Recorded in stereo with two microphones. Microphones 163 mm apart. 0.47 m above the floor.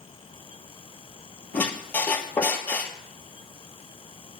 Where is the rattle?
I don't hear a rattle.